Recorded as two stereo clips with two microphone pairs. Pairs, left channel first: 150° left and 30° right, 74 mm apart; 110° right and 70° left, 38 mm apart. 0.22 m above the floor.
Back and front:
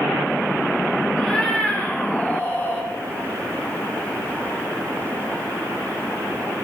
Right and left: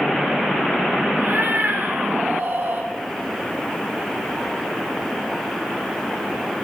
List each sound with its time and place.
1.2 s a cat meowing: 70° left, 1.9 m; by 2.9 s 90° left, 2.5 m